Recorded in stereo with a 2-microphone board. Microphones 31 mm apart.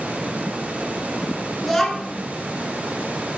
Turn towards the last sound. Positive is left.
turn(degrees=10)  # may be behind; listen again after turning